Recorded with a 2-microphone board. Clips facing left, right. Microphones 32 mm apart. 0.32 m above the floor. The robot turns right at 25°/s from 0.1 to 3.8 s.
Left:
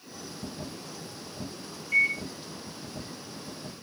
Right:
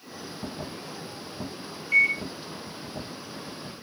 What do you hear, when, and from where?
1.9 s a microwave: 30° right (ahead or behind), 2.0 m; by 2.2 s 35° right (ahead or behind), 2.0 m